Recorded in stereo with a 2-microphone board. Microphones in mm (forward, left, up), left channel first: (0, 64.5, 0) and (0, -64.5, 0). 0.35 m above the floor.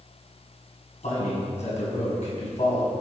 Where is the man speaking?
60° left (ahead or behind), 2.5 m.